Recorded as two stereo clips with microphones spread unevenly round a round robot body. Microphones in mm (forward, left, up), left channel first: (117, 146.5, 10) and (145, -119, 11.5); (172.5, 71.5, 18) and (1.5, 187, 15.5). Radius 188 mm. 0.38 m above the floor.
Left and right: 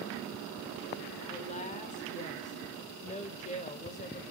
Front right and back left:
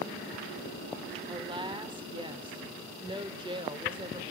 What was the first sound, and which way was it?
A woman speaking, 115° left.